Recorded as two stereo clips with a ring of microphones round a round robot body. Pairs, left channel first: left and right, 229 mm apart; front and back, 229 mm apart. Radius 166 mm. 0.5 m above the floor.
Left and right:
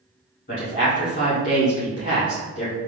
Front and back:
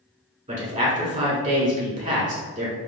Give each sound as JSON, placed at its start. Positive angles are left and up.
{"t": 0.5, "sound": "a man speaking", "azimuth_deg": 135, "distance_m": 1.8}